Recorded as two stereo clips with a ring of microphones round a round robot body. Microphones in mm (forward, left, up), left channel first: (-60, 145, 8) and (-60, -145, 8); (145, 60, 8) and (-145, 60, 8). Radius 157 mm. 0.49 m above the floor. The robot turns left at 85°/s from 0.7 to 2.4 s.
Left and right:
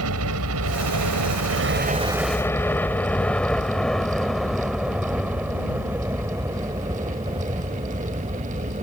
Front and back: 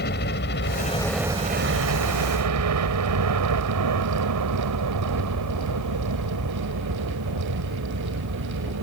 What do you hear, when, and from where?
0.0 s a helicopter: 55° right; by 8.8 s 155° right